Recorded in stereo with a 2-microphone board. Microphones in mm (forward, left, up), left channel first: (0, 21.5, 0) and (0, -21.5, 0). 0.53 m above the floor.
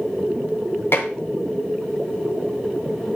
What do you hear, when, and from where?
0.9 s dishes clattering: 70° left (ahead or behind), 2.5 m